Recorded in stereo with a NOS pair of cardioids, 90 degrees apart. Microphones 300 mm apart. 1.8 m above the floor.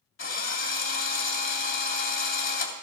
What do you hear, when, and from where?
0.2 s a drill: 45° left, 3 m